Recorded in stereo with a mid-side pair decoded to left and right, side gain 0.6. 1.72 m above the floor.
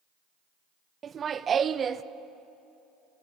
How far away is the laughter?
About 0.6 m.